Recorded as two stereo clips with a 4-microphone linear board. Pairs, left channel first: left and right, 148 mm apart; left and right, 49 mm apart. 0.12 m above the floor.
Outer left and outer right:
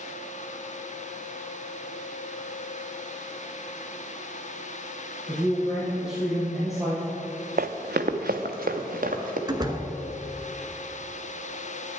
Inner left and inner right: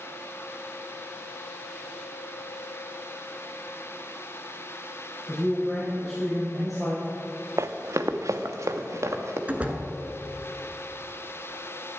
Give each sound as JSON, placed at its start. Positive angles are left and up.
{"t": 5.3, "sound": "a man speaking", "side_deg": 0, "distance_m": 3.5}
{"t": 7.6, "sound": "running footsteps", "side_deg": -70, "distance_m": 0.7}
{"t": 9.5, "sound": "a door slam", "side_deg": -25, "distance_m": 1.1}